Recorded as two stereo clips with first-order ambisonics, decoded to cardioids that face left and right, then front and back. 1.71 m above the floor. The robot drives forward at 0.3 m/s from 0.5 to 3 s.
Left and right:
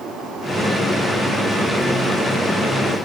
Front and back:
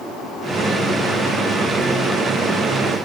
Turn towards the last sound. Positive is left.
No sound to turn to.